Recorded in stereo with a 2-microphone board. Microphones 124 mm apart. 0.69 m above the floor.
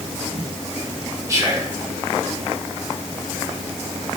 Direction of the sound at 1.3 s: 25° right (ahead or behind).